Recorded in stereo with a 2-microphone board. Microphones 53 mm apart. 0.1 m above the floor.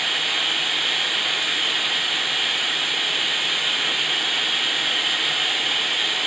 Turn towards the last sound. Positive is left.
turn(degrees=0)  # may be behind; listen again after turning